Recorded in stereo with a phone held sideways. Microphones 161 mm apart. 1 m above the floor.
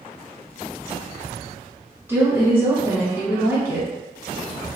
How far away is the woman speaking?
About 0.9 m.